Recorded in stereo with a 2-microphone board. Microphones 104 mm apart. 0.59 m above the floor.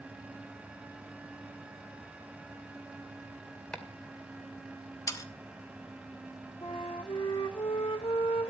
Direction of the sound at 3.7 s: 5° left (ahead or behind).